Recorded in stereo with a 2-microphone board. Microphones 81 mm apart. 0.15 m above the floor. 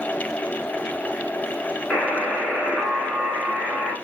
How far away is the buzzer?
About 1.9 m.